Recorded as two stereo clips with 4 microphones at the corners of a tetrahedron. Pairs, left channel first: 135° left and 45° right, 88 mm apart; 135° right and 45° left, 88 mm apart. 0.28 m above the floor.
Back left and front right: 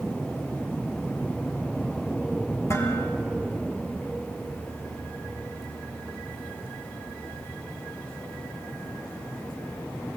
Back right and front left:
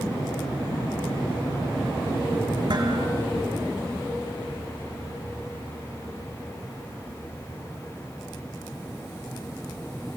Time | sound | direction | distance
2.7 | dishes clattering | 80° left | 3 m